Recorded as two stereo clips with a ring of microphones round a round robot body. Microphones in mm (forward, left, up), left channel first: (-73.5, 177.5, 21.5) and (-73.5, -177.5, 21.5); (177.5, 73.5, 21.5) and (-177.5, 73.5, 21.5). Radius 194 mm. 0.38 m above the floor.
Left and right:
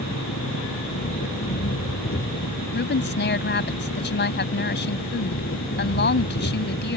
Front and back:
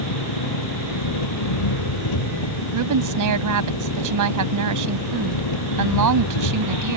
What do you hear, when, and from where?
0.0 s an engine running: 20° left
2.7 s a woman speaking: 150° left